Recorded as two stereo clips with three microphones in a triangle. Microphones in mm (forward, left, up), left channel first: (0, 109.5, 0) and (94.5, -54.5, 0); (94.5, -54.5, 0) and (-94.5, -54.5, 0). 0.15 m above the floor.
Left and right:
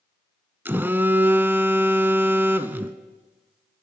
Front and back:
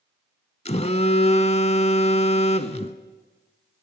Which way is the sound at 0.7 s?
15° left.